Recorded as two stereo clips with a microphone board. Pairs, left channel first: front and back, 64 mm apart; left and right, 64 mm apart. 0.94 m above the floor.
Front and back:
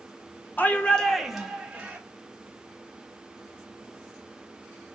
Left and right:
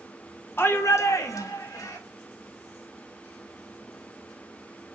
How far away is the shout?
About 0.7 m.